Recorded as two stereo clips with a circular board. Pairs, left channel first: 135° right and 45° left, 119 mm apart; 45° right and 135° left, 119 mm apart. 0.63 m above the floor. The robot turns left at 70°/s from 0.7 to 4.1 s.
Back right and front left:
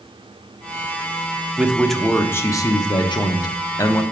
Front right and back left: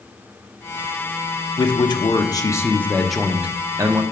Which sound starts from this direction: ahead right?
A man speaking, at 1.6 s.